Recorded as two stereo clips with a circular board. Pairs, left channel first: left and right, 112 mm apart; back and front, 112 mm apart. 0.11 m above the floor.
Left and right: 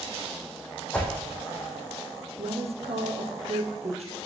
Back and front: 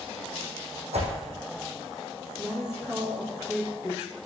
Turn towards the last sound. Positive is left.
turn(degrees=-85)